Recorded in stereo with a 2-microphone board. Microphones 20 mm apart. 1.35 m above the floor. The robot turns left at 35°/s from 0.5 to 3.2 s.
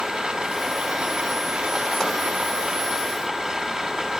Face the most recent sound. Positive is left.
turn(degrees=-140)